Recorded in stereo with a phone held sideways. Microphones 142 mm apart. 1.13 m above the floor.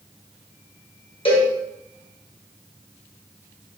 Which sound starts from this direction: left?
A cowbell, at 1.2 s.